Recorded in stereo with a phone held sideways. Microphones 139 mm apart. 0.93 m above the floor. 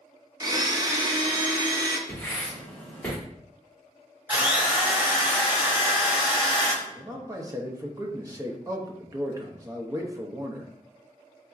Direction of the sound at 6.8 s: 25° right (ahead or behind).